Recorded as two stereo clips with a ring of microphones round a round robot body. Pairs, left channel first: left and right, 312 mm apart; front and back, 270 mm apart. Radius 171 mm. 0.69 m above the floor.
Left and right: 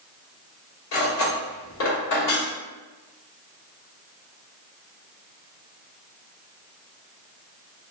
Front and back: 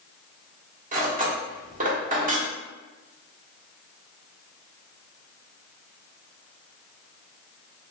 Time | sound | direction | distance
0.9 | cutlery clinking | 120° left | 1.2 m